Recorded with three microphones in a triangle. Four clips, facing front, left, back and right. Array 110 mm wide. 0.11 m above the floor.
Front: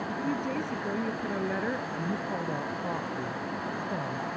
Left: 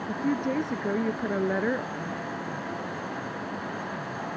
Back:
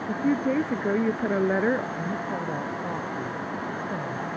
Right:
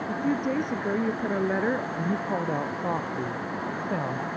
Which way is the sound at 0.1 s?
175° right.